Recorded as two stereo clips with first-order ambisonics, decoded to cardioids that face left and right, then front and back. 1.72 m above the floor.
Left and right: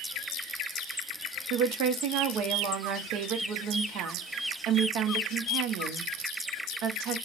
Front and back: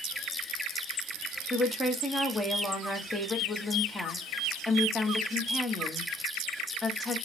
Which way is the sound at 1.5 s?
85° right.